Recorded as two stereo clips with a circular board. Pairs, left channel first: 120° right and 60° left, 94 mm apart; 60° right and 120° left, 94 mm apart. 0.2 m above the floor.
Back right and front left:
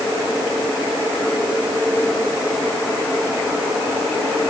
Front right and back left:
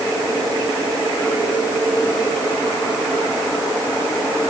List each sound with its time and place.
Only background noise.